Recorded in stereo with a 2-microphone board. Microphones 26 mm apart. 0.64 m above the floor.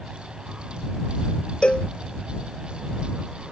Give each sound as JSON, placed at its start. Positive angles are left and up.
{"t": 1.6, "sound": "a cowbell", "side_deg": 50}